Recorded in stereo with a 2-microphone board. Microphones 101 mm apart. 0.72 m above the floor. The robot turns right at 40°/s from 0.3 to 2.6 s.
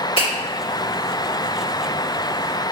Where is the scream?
I don't hear a scream.